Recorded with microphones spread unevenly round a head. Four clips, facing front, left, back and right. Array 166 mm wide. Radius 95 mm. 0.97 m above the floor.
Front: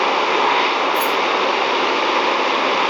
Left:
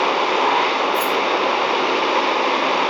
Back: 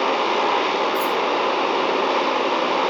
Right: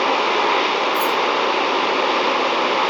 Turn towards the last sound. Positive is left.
turn(degrees=-70)